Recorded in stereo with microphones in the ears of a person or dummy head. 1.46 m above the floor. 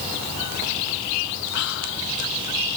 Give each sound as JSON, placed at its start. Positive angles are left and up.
{"t": 1.5, "sound": "whispering", "side_deg": 65, "distance_m": 3.0}